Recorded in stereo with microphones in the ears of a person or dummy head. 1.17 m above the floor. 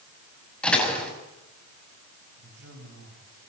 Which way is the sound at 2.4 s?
75° right (ahead or behind).